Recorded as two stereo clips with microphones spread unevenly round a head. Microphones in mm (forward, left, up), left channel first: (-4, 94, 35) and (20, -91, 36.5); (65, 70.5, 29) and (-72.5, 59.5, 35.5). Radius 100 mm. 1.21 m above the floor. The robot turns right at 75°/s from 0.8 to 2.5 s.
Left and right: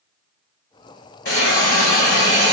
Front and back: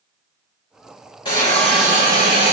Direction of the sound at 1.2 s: 60° left.